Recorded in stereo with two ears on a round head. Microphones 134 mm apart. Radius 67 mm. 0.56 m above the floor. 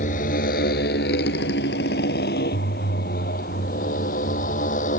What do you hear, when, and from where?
0.0 s a motorcycle: 55° left (ahead or behind); by 5.0 s 60° left (ahead or behind)